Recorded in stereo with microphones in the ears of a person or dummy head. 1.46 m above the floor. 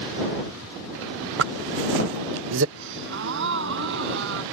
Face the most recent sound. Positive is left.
turn(degrees=-70)  # may be behind; listen again after turning